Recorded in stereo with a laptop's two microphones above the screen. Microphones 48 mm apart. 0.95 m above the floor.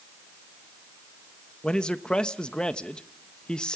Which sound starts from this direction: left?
A man speaking, at 1.6 s.